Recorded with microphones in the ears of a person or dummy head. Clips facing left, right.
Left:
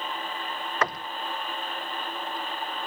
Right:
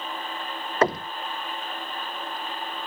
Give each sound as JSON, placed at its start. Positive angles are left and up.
{"t": 0.8, "sound": "knocking", "side_deg": -30}